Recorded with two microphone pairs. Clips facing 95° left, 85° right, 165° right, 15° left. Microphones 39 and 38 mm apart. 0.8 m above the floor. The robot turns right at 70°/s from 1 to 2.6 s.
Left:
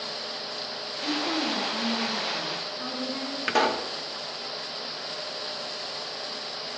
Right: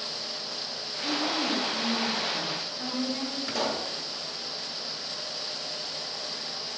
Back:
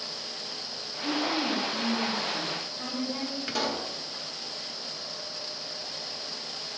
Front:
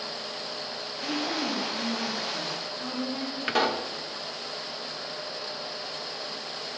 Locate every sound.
1.0 s a woman speaking: 90° left, 5 m; by 3.4 s 155° right, 5 m
3.5 s a pop: 80° left, 0.9 m